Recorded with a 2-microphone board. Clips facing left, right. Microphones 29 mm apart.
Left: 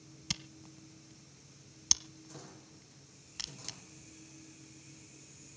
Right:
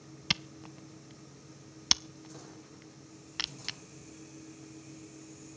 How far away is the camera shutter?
About 0.5 m.